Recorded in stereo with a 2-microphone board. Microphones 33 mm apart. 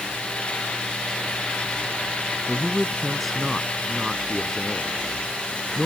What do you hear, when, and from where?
2.5 s a man speaking: 5° left (ahead or behind)